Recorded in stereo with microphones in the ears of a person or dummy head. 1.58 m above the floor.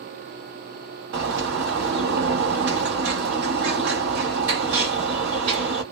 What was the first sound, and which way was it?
A bird, 45° right (ahead or behind).